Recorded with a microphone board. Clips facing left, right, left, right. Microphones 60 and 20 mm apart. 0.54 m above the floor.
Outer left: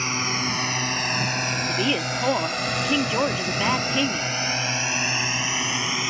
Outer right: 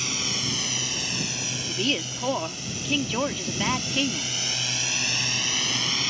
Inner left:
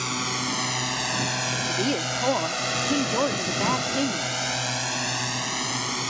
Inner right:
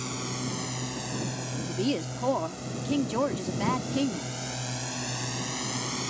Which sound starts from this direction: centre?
A woman speaking, at 1.7 s.